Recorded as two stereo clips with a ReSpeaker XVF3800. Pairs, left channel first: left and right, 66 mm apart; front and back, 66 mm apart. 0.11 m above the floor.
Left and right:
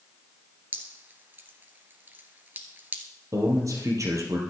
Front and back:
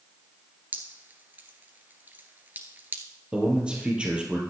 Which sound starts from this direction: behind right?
Dripping, at 0.7 s.